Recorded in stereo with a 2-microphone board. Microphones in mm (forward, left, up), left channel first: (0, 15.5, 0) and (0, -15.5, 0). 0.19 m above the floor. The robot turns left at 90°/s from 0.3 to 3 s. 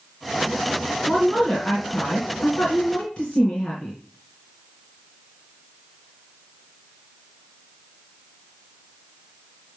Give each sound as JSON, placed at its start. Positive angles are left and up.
{"t": 1.1, "sound": "a woman speaking", "azimuth_deg": -155, "distance_m": 2.0}